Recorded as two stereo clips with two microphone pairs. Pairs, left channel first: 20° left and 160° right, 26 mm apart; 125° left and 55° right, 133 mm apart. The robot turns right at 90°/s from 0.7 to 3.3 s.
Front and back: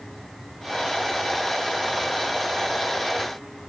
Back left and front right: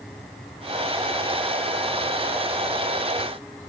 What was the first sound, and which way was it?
Only background noise.